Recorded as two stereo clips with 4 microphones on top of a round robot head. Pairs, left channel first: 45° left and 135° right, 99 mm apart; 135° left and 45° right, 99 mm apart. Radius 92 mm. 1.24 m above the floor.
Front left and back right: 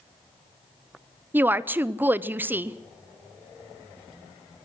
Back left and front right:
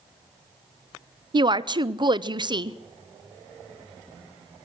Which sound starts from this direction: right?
A woman speaking, at 1.3 s.